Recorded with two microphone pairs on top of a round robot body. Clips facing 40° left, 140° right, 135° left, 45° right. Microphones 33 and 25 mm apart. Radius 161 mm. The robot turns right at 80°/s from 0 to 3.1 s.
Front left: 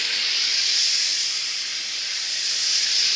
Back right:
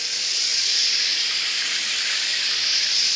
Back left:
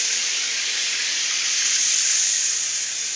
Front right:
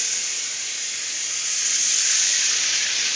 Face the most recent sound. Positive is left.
turn(degrees=-40)